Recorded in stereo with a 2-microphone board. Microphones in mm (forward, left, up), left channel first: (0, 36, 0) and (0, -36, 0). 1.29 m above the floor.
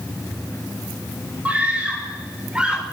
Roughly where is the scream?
Centre.